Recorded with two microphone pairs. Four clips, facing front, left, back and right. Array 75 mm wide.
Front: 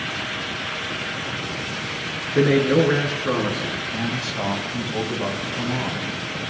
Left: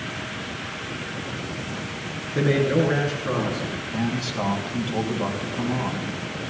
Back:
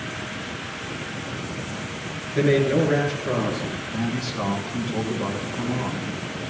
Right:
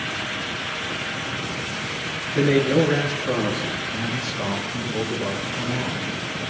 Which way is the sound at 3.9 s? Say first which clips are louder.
Left 1 dB, front 1 dB; 45° left.